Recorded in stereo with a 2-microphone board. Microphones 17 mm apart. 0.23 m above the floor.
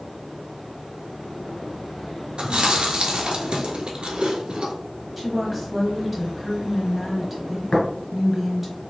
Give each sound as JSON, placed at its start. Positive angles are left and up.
{"t": 2.4, "sound": "chewing", "side_deg": -70, "distance_m": 1.1}
{"t": 5.2, "sound": "a woman speaking", "side_deg": -15, "distance_m": 0.9}
{"t": 7.7, "sound": "tapping", "side_deg": 60, "distance_m": 1.6}